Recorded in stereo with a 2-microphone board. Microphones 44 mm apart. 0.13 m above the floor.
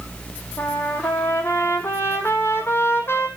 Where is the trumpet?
60° left (ahead or behind), 1.0 m.